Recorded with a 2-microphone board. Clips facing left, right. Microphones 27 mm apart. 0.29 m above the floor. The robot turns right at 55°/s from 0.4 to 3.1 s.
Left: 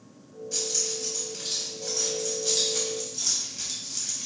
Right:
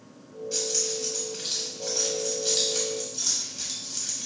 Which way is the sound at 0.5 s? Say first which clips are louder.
Right 1 dB; 30° right (ahead or behind).